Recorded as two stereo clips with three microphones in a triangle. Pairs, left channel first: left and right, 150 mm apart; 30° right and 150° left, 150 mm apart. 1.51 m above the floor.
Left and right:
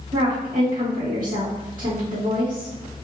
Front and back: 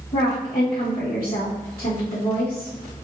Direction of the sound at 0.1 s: 60° right.